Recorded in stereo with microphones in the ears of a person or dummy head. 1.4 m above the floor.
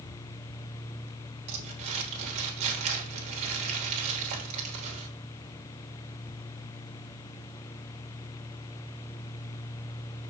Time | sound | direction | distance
1.5 | crumpling | 35° right (ahead or behind) | 3.5 m